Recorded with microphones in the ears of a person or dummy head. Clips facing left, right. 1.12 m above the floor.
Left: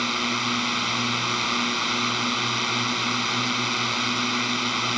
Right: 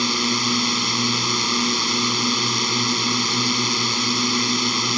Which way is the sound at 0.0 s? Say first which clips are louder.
Right 5 dB; 60° right (ahead or behind).